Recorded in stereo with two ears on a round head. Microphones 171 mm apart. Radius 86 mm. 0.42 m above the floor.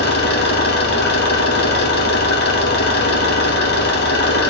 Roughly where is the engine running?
Left.